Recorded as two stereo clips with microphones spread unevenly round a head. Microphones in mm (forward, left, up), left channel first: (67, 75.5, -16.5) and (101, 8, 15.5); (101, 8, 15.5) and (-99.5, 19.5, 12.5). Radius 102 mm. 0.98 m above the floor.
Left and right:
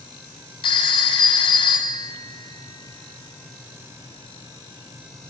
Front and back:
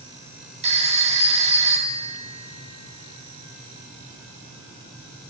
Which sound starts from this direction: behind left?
A phone ringing, at 0.6 s.